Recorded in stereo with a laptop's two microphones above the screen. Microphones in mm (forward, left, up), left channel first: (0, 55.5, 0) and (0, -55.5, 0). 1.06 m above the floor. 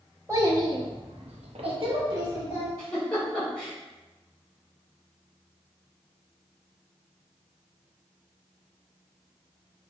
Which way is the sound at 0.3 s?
30° right (ahead or behind).